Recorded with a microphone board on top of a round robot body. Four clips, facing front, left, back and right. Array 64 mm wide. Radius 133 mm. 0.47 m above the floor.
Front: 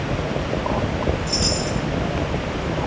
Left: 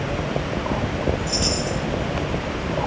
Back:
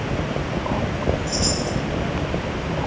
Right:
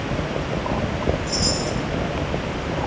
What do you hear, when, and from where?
1.3 s a chime: 60° left, 3.5 m